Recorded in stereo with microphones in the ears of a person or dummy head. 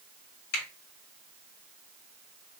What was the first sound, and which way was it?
A finger snap, 60° left (ahead or behind).